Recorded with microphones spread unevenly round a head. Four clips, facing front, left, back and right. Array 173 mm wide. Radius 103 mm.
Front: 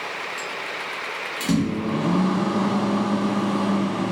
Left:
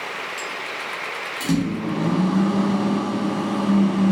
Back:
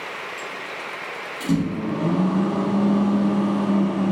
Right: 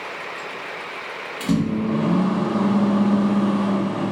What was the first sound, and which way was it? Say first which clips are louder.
A microwave: right 2 dB, even; 40° right.